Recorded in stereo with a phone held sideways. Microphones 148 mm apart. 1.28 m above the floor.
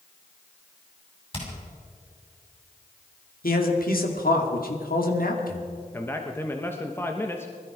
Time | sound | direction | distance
1.3 | hammering | 40° left (ahead or behind) | 7 m
3.4 | a man speaking | 85° left | 2.5 m
5.9 | a man speaking | 15° left (ahead or behind) | 1.2 m